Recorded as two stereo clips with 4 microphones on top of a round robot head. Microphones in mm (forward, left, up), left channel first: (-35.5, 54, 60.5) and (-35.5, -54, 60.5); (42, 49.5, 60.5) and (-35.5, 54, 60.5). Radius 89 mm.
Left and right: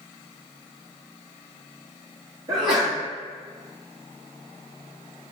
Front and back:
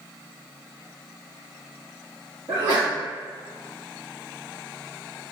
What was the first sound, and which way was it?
A sneeze, 130° right.